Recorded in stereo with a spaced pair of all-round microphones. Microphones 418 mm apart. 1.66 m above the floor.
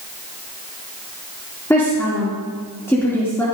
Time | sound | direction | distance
1.7 | a woman speaking | 5° left (ahead or behind) | 2.5 m